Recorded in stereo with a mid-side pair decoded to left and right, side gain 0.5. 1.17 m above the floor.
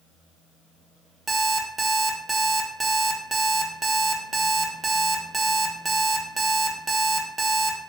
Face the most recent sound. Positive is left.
turn(degrees=-25)